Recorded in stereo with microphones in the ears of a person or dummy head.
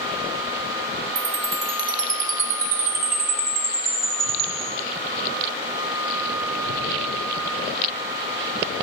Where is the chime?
45° right (ahead or behind), 1.2 m.